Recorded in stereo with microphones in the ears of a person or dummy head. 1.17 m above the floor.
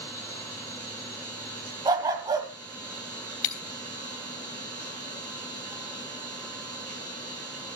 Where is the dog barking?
15° right (ahead or behind), 1.5 m.